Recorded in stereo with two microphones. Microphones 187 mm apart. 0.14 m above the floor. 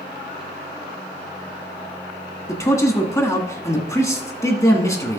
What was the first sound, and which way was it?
A man speaking, 15° left (ahead or behind).